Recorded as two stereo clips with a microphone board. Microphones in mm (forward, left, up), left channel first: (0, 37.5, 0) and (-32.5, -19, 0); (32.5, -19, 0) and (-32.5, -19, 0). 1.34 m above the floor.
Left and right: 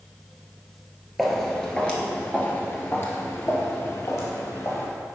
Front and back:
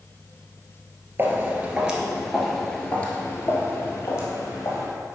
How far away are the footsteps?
About 1.6 m.